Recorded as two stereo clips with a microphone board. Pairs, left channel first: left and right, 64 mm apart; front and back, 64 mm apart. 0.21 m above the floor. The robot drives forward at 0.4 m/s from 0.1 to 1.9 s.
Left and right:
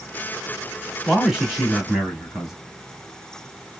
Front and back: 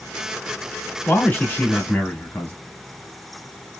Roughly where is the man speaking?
Ahead.